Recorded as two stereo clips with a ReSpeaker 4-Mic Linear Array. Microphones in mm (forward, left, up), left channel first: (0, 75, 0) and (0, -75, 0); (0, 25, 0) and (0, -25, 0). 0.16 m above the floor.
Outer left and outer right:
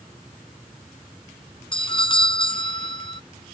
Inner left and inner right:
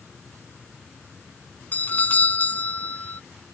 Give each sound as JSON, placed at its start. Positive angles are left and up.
{"t": 1.7, "sound": "a doorbell", "side_deg": 35}